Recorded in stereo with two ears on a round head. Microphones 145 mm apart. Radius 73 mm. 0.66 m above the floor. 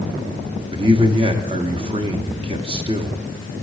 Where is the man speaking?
35° right (ahead or behind), 1.1 m.